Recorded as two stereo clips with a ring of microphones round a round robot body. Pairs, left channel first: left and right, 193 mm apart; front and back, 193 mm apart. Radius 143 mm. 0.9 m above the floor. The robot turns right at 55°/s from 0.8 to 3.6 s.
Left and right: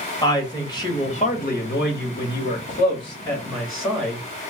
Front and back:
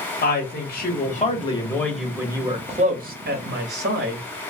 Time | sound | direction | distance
0.2 | a woman speaking | 25° left | 1.3 m